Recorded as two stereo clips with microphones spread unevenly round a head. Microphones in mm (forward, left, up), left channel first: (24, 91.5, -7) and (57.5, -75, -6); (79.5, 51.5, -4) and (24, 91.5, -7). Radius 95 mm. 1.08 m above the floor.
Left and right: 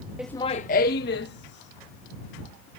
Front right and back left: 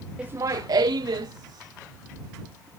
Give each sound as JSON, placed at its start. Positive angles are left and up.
{"t": 0.2, "sound": "laughter", "azimuth_deg": -155}